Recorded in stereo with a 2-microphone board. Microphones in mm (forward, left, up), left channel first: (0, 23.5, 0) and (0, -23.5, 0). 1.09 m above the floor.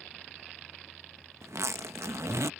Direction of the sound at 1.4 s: 90° right.